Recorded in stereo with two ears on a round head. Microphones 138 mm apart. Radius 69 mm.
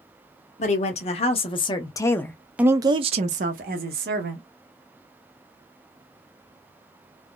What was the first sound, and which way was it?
A woman speaking, 50° left (ahead or behind).